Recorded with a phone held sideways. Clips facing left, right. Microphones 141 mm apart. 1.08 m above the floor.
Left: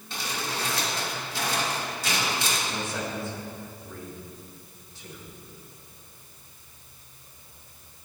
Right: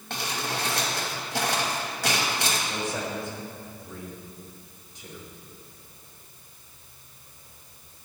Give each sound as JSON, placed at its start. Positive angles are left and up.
{"t": 0.1, "sound": "crumpling", "side_deg": -70, "distance_m": 4.5}
{"t": 2.7, "sound": "a man speaking", "side_deg": -20, "distance_m": 5.0}